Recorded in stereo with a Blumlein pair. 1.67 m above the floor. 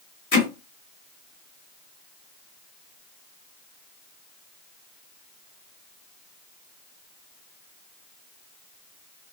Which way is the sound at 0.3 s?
50° left.